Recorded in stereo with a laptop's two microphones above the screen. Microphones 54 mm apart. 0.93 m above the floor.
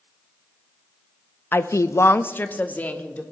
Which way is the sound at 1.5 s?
40° left (ahead or behind).